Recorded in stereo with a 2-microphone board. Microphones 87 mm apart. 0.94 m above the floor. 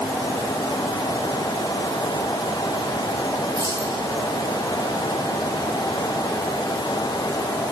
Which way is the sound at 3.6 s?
50° right (ahead or behind).